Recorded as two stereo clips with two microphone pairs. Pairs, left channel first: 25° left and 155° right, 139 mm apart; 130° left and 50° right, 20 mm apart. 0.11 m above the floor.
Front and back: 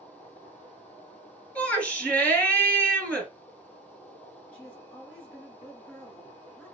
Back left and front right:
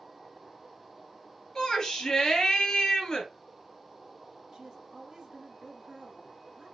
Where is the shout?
100° left, 1.7 m.